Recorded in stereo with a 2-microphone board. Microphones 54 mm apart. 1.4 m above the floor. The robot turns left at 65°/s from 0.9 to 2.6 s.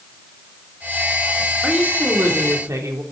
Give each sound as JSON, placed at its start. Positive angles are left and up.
{"t": 1.6, "sound": "a woman speaking", "azimuth_deg": -20, "distance_m": 3.0}